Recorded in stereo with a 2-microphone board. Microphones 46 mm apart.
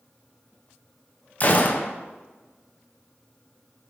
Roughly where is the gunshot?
Left.